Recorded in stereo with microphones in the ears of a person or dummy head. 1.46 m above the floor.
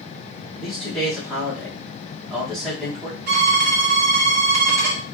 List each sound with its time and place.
0.6 s a man speaking: centre (ahead or behind), 1.5 m
3.3 s a violin: 55° right (ahead or behind), 0.9 m